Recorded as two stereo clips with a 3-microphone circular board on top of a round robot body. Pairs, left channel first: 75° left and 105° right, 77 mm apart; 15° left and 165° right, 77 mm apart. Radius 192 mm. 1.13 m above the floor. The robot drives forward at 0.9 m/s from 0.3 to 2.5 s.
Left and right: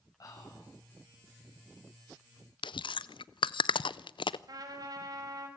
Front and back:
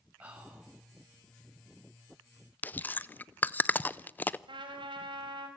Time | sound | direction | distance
0.2 | whispering | 120° left | 9 m
2.6 | chewing | 85° left | 0.6 m
4.5 | a trumpet | 145° right | 3.5 m